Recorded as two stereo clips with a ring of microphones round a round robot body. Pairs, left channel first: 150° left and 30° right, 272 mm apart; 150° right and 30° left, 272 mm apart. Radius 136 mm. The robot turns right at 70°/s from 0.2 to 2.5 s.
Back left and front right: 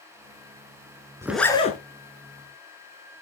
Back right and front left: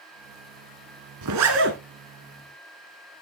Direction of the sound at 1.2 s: 50° left.